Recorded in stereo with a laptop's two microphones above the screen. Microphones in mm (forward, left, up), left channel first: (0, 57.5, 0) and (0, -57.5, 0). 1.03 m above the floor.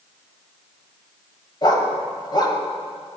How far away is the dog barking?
About 1.9 m.